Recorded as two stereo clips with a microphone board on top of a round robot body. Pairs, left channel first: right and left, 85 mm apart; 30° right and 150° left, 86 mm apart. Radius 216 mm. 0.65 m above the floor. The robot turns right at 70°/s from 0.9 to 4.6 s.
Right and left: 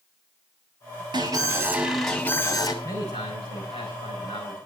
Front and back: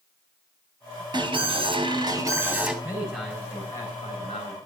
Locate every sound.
1.1 s an alarm: 120° left, 3 m; by 2.7 s 130° right, 3 m
2.8 s a man speaking: 145° right, 7 m; by 4.6 s 25° right, 7 m